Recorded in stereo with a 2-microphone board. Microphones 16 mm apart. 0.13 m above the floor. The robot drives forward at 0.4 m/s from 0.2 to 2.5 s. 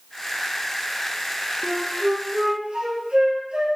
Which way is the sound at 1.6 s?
60° right (ahead or behind).